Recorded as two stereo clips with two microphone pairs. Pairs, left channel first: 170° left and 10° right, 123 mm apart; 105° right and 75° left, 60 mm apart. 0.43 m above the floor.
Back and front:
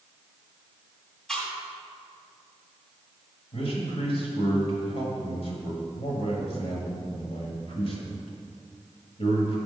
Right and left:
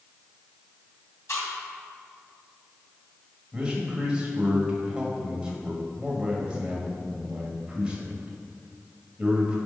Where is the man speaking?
150° left, 1.7 m.